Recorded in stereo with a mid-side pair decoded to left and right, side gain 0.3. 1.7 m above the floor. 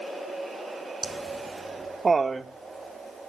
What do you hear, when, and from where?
1.0 s laughter: 35° right, 0.7 m; by 3.3 s 50° right, 2 m